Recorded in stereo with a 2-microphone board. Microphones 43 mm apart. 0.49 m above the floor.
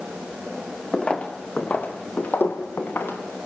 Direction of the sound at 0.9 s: 20° left (ahead or behind).